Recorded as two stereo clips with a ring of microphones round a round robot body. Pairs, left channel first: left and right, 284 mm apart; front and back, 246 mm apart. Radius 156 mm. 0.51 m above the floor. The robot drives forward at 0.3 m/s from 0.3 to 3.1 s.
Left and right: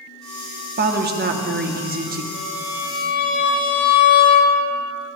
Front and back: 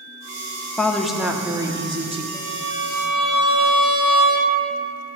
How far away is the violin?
About 3 m.